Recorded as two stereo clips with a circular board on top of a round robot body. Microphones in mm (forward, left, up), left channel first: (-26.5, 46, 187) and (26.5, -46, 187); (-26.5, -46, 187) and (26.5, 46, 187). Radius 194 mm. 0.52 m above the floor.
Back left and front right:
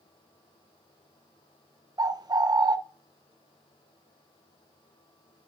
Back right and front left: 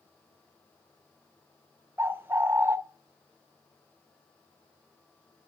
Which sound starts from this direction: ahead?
A bird, at 2.0 s.